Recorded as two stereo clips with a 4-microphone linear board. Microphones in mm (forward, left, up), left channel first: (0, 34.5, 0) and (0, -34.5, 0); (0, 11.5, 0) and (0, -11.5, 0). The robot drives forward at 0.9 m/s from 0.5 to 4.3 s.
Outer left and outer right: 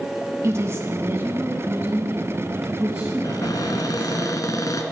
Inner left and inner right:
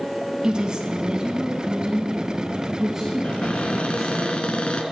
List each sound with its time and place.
0.4 s a woman speaking: 40° right (ahead or behind), 1.6 m; by 4.2 s 15° right (ahead or behind), 4 m
3.2 s a cupboard door: 60° left (ahead or behind), 1.6 m; by 4.8 s 55° left (ahead or behind), 1.7 m